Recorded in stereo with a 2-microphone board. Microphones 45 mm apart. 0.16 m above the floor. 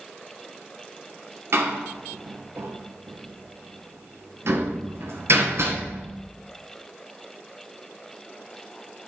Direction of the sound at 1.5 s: 65° right (ahead or behind).